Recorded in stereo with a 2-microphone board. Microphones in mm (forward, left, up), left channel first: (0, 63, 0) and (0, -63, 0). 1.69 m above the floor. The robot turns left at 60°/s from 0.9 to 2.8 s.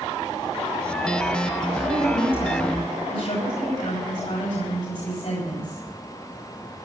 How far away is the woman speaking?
About 8 m.